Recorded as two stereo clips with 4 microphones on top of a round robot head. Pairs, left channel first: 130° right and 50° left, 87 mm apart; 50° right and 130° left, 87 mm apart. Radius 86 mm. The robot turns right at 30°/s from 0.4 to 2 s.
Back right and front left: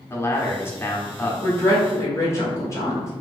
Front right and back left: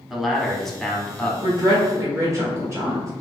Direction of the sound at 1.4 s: 165° left.